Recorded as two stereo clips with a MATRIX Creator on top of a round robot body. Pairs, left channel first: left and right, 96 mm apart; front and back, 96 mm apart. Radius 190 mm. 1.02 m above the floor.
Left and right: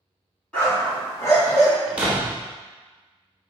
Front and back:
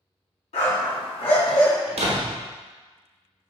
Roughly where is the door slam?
Behind.